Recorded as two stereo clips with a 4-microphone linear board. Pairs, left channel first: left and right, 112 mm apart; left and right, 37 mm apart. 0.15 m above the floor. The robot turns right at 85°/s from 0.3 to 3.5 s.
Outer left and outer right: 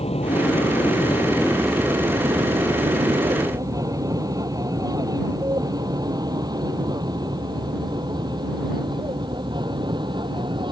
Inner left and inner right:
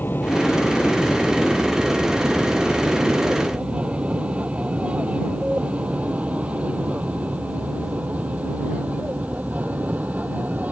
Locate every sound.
0.0 s an aircraft: 55° left (ahead or behind); by 10.7 s 40° right (ahead or behind)